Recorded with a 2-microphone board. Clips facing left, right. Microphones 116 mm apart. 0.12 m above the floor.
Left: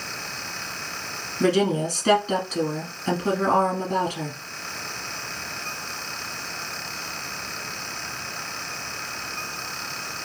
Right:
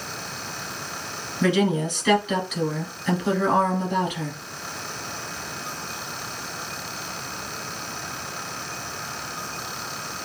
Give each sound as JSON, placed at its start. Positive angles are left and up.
{"t": 1.4, "sound": "a woman speaking", "side_deg": 40, "distance_m": 1.5}